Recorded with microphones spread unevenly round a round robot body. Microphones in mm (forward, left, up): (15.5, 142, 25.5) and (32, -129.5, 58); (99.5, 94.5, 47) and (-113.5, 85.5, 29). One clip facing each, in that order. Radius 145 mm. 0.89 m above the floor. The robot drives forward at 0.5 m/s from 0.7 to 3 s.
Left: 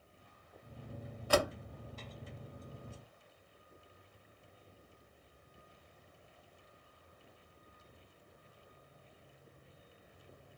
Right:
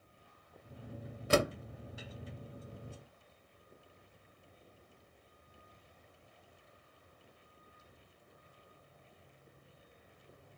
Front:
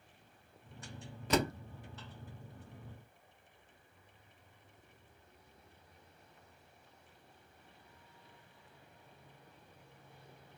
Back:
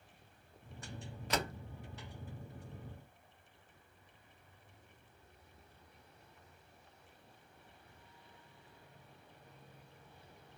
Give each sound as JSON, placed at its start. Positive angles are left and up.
{"t": 1.3, "sound": "a door slam", "azimuth_deg": -20, "distance_m": 0.8}